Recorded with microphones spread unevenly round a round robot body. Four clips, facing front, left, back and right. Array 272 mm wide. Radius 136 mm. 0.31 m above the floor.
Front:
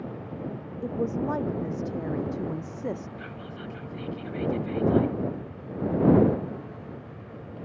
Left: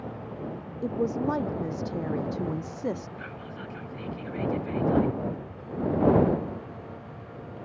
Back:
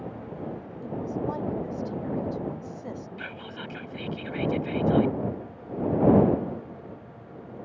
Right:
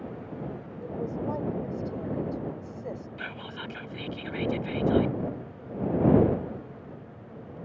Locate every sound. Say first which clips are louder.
0.8 s a woman speaking: left 5 dB, front 3 dB; 55° left
3.2 s whispering: right 1 dB, back 1 dB; 120° right